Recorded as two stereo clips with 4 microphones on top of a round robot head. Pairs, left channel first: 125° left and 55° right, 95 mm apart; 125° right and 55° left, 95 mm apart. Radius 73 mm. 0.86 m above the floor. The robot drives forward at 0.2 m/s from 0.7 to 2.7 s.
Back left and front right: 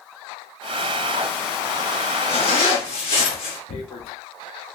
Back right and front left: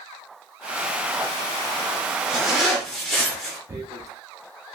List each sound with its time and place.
2.3 s a zipper: 135° left, 0.5 m; by 3.6 s 145° left, 0.6 m
3.7 s tearing paper: 115° left, 0.6 m